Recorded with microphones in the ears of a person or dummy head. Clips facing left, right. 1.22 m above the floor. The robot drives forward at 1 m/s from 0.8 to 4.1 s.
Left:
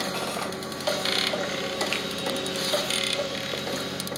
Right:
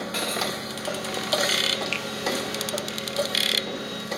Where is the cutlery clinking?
20° right (ahead or behind), 0.7 m.